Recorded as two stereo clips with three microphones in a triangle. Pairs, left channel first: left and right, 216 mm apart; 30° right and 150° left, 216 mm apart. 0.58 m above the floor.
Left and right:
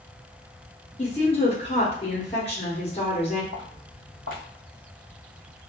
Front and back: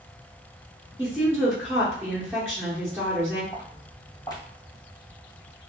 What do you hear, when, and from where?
1.0 s a woman speaking: 85° left, 0.8 m
3.5 s footsteps: 100° right, 1.6 m